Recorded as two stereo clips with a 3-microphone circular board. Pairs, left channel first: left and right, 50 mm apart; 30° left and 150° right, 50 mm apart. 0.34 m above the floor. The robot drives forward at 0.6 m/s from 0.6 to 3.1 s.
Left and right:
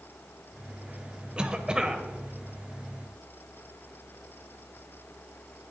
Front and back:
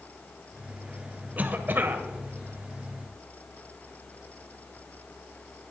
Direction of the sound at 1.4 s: 145° right.